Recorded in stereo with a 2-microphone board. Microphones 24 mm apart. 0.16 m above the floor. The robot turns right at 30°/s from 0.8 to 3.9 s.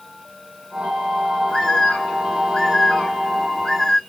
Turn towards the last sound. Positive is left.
turn(degrees=155)